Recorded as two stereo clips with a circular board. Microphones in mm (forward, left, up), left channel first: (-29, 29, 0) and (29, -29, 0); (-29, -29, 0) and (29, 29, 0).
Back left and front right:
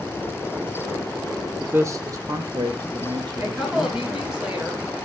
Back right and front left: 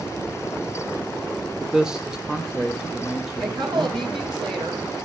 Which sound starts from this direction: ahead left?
A woman speaking, at 3.4 s.